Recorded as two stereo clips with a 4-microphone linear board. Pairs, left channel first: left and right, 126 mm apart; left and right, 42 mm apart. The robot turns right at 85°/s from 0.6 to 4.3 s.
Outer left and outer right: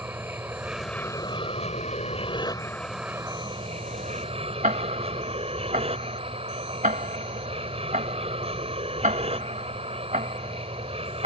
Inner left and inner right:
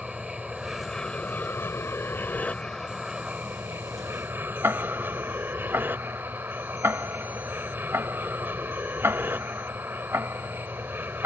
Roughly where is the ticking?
Right.